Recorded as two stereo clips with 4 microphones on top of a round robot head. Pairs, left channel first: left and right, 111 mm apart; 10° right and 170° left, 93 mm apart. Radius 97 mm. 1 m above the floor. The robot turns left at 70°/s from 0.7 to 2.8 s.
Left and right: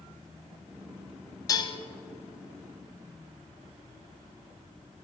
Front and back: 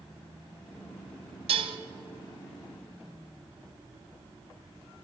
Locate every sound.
1.5 s dishes clattering: 155° left, 0.5 m; by 1.8 s 130° left, 0.5 m